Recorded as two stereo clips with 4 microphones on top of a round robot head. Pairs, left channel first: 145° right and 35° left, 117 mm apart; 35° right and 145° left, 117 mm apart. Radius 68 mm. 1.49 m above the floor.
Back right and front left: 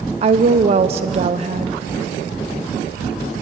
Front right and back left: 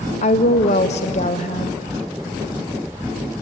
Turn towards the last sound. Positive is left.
turn(degrees=-5)